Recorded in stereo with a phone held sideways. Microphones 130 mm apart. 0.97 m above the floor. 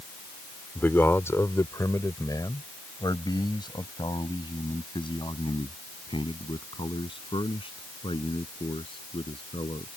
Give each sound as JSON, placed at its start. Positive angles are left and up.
{"t": 0.8, "sound": "a man speaking", "side_deg": 15}